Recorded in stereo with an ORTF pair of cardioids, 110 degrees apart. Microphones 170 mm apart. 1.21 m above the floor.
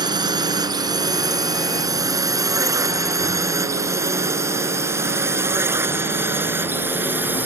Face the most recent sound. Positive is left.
turn(degrees=-10)